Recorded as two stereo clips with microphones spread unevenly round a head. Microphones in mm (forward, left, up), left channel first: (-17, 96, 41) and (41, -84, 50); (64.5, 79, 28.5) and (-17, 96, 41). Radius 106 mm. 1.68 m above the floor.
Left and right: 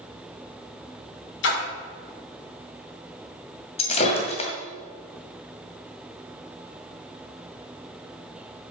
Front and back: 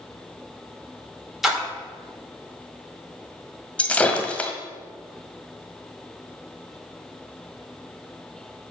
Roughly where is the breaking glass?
Ahead left.